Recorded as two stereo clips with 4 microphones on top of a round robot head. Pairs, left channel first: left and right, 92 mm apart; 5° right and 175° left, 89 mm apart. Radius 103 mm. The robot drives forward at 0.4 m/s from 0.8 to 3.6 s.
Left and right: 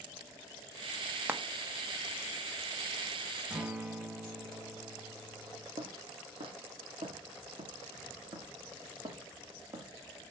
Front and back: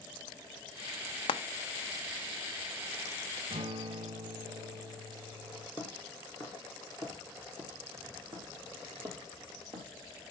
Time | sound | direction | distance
1.3 | frying | 20° right | 0.8 m
3.5 | a guitar | 170° right | 1.1 m
5.8 | footsteps | 100° right | 3 m